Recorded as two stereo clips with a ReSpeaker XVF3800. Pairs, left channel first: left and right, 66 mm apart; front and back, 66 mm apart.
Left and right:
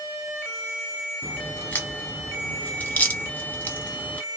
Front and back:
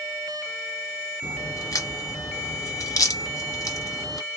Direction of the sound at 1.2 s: 30° left.